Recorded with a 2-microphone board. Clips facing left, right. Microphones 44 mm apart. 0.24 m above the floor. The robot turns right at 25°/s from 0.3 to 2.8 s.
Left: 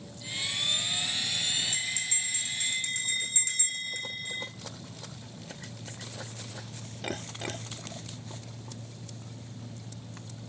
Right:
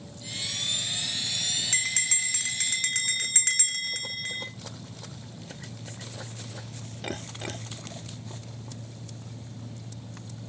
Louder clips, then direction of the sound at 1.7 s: Right 4 dB; 70° right (ahead or behind).